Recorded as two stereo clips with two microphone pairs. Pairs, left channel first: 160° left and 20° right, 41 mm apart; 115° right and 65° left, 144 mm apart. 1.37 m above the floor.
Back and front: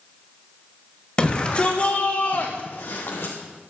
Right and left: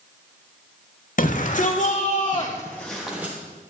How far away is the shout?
About 2 m.